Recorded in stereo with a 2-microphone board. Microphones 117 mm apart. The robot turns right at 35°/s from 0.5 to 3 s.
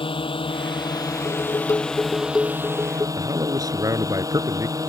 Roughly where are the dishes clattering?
Behind left.